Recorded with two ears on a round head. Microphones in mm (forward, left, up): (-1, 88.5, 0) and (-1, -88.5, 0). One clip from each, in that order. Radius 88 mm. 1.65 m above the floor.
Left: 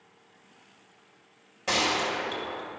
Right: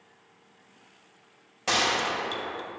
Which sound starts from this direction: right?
A gunshot, at 1.7 s.